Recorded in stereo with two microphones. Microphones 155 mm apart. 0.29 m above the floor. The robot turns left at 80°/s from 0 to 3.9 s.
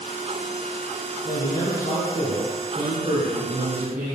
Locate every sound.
1.2 s a man speaking: 115° left, 4 m; by 4.2 s 95° right, 4 m